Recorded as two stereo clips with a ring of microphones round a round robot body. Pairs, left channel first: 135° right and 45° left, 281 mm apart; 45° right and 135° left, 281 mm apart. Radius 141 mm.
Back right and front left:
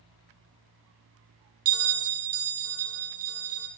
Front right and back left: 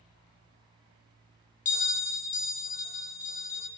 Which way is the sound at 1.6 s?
15° left.